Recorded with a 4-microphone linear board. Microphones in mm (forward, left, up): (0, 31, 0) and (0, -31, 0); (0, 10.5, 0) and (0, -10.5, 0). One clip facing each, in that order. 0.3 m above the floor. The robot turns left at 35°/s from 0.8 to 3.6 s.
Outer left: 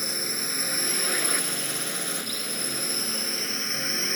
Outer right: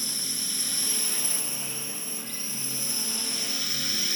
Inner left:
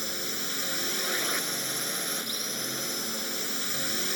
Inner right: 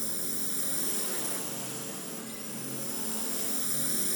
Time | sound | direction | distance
0.0 | a drone | 130° left | ?